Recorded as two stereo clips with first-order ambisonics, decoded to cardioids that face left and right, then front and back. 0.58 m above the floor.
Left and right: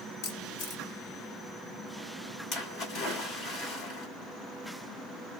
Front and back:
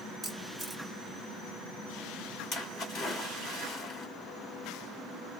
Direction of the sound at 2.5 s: 45° left.